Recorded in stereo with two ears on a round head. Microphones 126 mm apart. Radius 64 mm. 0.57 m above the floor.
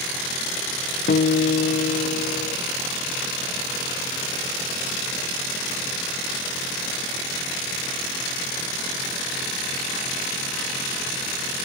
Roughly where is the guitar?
Left.